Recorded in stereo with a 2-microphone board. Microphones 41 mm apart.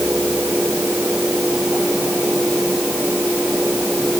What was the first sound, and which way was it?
Only background noise.